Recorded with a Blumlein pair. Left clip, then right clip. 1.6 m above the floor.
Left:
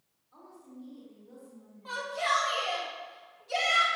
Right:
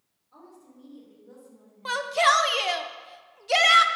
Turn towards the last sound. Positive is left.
turn(degrees=-55)